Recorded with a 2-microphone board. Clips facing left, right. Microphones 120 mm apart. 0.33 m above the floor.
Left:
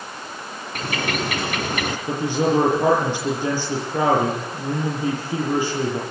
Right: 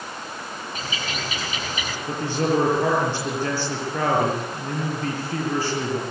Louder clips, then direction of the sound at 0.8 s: Left 9 dB; 65° left (ahead or behind).